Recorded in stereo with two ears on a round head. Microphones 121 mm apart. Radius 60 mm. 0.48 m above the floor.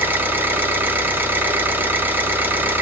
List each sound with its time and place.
0.0 s an engine running: 15° right (ahead or behind), 0.9 m